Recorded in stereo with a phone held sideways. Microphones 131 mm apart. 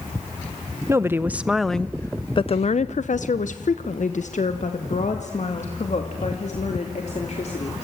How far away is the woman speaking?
About 1.1 m.